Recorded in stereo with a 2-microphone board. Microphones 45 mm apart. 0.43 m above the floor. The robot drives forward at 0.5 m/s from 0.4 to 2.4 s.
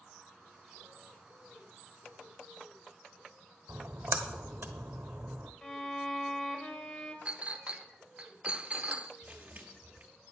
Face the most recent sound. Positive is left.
turn(degrees=-35)  # may be behind; listen again after turning